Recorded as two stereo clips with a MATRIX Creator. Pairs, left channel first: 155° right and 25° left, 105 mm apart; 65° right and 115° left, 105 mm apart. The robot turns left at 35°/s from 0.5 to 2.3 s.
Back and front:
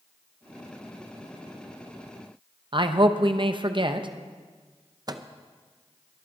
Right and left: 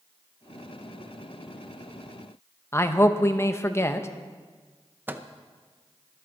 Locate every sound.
2.7 s a man speaking: 5° right, 0.8 m
5.1 s a microwave: 50° left, 0.6 m